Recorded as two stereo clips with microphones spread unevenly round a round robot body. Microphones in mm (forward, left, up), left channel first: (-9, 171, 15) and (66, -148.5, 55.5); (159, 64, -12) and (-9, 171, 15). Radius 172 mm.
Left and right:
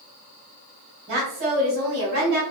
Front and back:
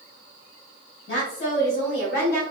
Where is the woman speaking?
20° right, 1.8 m; by 2.4 s 45° right, 1.1 m.